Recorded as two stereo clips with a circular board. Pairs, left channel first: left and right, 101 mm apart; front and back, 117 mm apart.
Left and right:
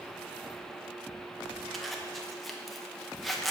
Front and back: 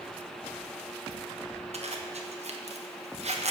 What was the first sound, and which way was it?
A zipper, straight behind.